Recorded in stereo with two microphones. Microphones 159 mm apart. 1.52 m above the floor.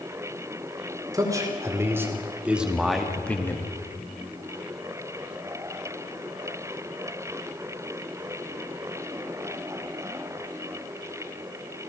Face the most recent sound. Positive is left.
turn(degrees=20)  # may be behind; listen again after turning